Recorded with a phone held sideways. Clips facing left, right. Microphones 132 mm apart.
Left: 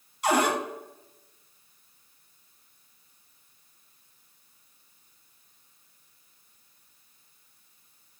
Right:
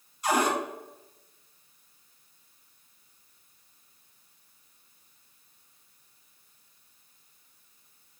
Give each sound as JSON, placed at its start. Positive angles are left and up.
{"t": 0.2, "sound": "a cupboard door", "side_deg": 75, "distance_m": 0.8}